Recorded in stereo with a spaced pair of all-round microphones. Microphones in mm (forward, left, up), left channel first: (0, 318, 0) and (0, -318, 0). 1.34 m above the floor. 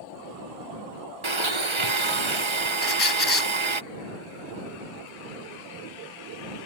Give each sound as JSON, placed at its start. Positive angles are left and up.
{"t": 1.2, "sound": "a blender", "side_deg": -45}
{"t": 2.8, "sound": "a squeak", "side_deg": 35}